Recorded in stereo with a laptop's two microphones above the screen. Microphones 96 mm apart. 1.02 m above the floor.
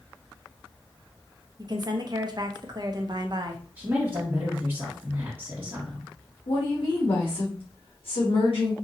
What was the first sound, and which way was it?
A woman speaking, 45° right (ahead or behind).